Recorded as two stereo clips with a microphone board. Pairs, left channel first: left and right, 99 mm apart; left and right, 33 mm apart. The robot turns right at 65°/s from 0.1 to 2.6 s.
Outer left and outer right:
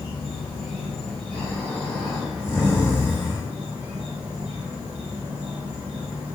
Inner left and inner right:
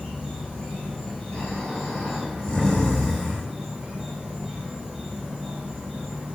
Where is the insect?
50° left, 1.7 m; by 6.3 s 145° right, 1.7 m.